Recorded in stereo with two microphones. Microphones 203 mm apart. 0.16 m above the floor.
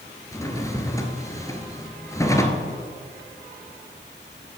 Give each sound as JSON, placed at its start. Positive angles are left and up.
{"t": 0.3, "sound": "a drawer", "side_deg": 15, "distance_m": 1.2}